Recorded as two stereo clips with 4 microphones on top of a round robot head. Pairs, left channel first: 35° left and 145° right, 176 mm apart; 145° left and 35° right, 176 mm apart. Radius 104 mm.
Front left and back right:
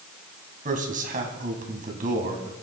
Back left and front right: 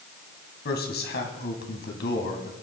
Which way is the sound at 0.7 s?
175° left.